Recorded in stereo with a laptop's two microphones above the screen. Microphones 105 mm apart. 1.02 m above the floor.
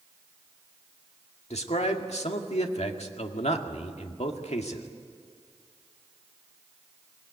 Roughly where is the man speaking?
Left.